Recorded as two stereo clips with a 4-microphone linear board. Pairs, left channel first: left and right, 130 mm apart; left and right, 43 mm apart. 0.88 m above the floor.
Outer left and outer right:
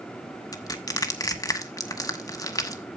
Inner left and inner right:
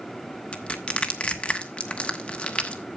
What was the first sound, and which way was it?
Crushing, 30° left (ahead or behind).